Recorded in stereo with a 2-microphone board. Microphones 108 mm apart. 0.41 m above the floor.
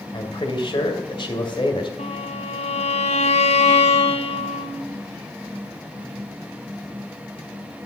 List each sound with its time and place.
0.1 s a man speaking: 45° left (ahead or behind), 2 m
2.0 s a violin: 80° left, 1.3 m